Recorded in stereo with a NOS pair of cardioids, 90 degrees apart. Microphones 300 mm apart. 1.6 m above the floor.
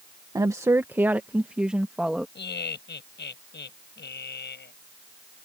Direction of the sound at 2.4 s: 35° left.